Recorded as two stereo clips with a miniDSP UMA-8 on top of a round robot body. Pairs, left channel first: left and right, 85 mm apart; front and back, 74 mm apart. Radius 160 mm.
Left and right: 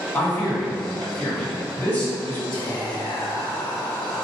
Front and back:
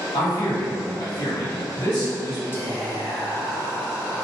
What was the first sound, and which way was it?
A man speaking, 20° left.